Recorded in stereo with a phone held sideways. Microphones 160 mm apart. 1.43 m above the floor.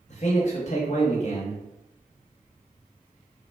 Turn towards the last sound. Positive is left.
turn(degrees=50)  # may be behind; listen again after turning